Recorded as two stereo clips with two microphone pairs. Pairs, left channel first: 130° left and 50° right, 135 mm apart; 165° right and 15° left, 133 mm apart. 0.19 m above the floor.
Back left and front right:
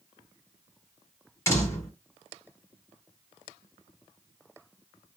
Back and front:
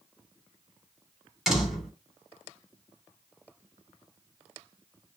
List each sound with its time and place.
1.5 s a door slam: 105° left, 1.2 m